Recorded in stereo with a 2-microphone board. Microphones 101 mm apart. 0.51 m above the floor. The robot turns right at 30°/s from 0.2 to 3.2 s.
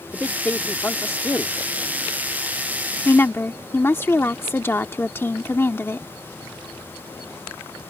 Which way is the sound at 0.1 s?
10° left (ahead or behind).